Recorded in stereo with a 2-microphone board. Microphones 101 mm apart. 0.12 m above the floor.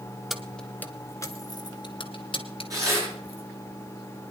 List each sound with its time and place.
0.3 s keys jangling: 5° right (ahead or behind), 0.9 m; by 3.4 s 65° left (ahead or behind), 1.8 m
2.7 s tearing paper: 35° right (ahead or behind), 9.5 m